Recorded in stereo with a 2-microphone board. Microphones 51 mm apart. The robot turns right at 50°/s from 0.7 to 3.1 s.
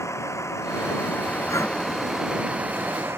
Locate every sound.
0.0 s a vehicle: 115° left; by 3.2 s 125° right
1.5 s breathing: 75° left (ahead or behind); by 1.8 s 85° left